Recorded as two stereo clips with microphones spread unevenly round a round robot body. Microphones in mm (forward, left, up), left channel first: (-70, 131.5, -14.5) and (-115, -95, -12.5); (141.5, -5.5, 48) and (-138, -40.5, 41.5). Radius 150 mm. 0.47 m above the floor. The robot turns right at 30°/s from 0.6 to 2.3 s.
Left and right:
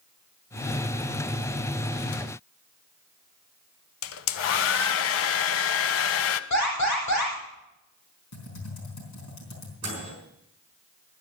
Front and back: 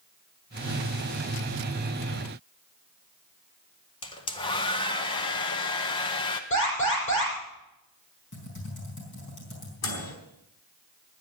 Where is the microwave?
30° right, 4.5 m.